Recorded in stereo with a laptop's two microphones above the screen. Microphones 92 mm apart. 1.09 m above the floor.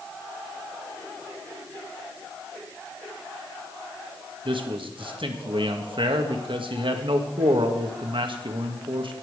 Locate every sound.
4.5 s a man speaking: 65° right (ahead or behind), 1.6 m